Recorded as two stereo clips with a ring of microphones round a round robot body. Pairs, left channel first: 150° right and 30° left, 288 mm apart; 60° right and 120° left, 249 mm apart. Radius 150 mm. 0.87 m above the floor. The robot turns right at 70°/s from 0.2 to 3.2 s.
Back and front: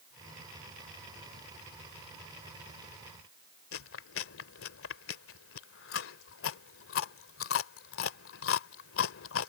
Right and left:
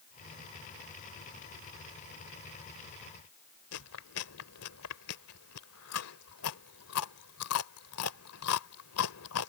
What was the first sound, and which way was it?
Chewing, 105° right.